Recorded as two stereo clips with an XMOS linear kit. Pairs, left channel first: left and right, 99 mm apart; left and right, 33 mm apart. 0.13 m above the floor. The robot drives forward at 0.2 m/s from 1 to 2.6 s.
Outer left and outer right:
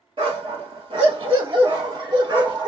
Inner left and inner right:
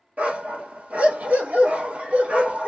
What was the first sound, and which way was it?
A dog barking, 60° right (ahead or behind).